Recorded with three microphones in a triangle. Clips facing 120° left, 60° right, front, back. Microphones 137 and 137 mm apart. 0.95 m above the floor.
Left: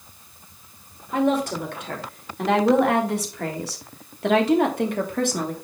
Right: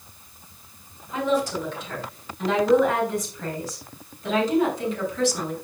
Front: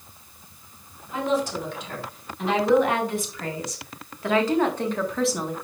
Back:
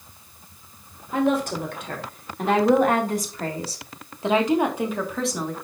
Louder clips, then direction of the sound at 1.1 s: Left 2 dB, back 3 dB; 150° left.